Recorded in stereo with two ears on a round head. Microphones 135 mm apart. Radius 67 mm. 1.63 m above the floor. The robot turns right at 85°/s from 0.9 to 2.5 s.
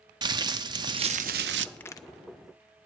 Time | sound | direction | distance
0.2 | crumpling | 150° right | 0.7 m
1.8 | a crack | 5° left (ahead or behind) | 0.8 m